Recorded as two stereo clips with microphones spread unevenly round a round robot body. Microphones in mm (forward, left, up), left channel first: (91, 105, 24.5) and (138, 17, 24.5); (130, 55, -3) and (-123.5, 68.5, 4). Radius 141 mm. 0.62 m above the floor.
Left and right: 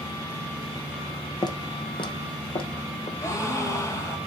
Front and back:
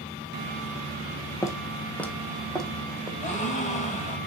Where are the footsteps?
75° left, 1.3 m; by 3.1 s 90° left, 2.5 m.